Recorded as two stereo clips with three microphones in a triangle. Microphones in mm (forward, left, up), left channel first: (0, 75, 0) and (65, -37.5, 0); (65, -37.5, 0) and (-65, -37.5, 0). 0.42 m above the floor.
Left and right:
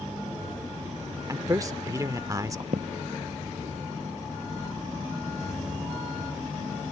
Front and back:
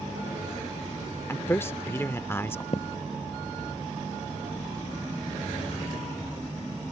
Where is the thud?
35° right.